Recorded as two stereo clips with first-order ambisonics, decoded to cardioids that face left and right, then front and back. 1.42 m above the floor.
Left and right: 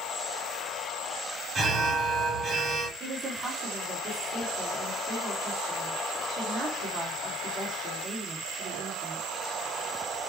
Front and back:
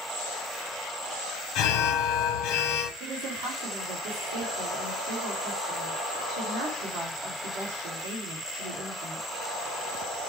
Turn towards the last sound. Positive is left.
turn(degrees=-160)